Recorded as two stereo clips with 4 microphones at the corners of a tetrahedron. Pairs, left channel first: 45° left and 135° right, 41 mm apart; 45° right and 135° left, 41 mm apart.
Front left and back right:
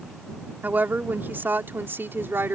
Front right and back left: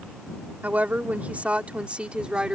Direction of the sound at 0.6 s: 175° right.